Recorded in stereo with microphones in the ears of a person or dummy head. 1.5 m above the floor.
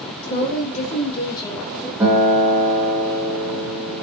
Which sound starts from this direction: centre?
A guitar, at 2.0 s.